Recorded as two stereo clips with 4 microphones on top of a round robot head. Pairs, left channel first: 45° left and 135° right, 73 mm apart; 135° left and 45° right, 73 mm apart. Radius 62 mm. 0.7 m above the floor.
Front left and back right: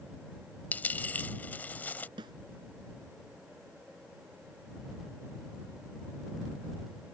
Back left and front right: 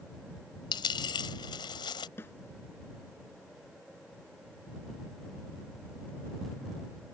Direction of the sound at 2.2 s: 160° right.